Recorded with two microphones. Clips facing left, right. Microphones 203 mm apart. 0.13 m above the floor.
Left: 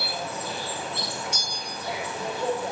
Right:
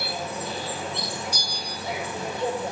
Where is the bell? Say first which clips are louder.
Right 1 dB; 35° right (ahead or behind), 0.9 m.